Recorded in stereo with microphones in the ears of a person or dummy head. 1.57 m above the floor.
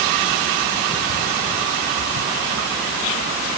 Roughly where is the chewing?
I don't hear chewing.